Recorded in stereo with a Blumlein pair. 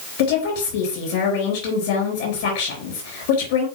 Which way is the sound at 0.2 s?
50° left.